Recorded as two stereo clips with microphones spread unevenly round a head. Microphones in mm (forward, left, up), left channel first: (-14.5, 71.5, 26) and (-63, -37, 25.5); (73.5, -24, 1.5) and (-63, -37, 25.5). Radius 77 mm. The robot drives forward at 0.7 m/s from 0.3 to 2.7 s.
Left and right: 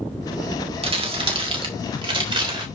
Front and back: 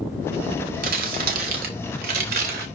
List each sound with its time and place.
0.8 s crumpling: 155° right, 2.5 m; by 2.7 s 160° right, 4 m